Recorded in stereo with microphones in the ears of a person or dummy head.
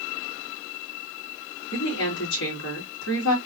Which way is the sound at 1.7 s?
75° left (ahead or behind).